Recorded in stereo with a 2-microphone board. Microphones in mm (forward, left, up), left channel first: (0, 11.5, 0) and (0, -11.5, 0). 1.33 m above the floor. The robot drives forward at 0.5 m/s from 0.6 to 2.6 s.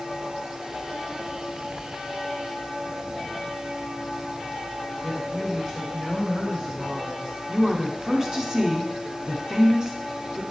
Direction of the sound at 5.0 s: 10° right (ahead or behind).